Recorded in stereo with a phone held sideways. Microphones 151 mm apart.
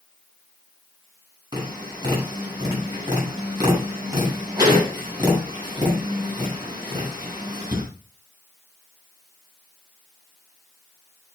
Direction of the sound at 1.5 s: 25° right (ahead or behind).